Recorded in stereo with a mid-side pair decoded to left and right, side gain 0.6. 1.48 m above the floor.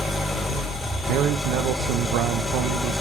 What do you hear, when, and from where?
0.0 s an engine running: 20° left, 1.7 m
1.1 s a man speaking: 70° right, 0.6 m